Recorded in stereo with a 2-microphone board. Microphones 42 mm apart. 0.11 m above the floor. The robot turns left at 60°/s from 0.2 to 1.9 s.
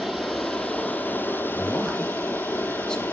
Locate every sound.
0.0 s running water: 175° right, 1.3 m; by 3.1 s 85° left, 1.3 m
1.5 s a man speaking: 30° left (ahead or behind), 1.7 m; by 3.0 s 20° left (ahead or behind), 1.7 m